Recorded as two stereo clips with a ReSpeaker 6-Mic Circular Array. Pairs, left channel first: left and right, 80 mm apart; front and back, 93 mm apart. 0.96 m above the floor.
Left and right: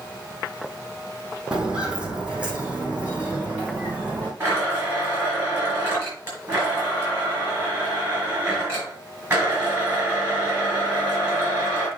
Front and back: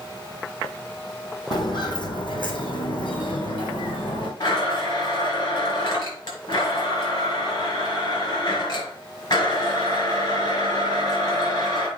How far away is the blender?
About 4.5 m.